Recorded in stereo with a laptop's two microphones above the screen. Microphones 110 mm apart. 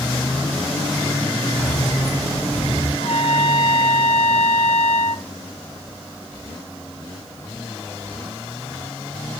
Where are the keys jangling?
80° left, 6 m.